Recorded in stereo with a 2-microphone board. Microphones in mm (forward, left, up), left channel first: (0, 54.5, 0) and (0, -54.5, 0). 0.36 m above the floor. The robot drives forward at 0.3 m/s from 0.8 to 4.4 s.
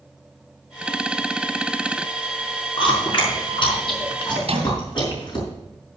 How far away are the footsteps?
I don't hear footsteps.